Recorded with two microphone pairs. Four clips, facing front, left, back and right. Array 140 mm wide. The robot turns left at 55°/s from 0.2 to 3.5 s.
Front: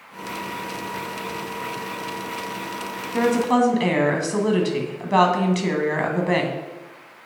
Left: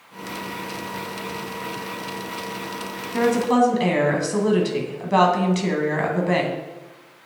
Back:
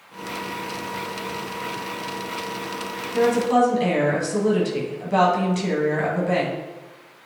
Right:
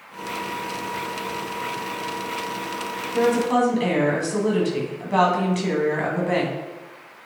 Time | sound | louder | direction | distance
3.1 | a woman speaking | left 1 dB, back 1 dB | 50° left | 1.9 m